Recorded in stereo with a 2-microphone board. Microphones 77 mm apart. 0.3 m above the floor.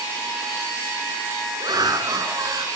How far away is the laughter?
About 3.5 m.